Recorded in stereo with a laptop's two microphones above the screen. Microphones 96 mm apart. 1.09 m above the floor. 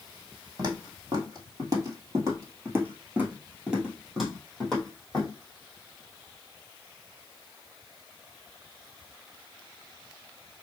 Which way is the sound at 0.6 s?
40° right (ahead or behind).